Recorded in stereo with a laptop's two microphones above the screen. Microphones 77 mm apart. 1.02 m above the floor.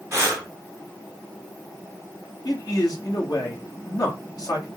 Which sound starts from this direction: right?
Breathing, at 0.1 s.